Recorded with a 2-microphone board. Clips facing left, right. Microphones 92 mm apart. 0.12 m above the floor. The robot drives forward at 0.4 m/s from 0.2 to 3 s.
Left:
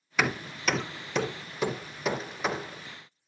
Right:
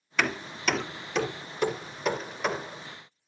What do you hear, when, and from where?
0.2 s hammering: 10° left (ahead or behind), 0.6 m; by 2.8 s 5° left (ahead or behind), 1.6 m